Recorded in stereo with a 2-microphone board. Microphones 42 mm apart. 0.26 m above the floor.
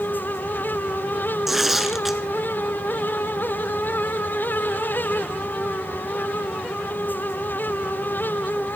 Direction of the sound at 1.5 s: 5° right (ahead or behind).